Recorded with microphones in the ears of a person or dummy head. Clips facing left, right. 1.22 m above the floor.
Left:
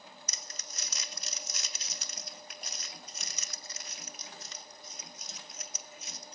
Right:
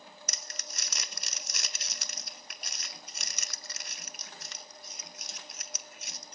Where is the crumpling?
50° right (ahead or behind), 0.5 m.